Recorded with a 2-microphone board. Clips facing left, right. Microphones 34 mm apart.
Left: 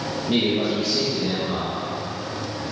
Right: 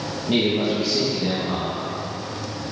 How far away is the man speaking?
About 1.3 m.